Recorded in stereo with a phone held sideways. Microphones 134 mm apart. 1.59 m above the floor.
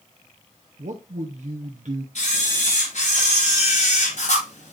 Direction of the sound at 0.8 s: 70° right (ahead or behind).